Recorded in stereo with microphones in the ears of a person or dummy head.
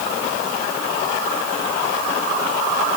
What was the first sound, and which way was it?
Only background noise.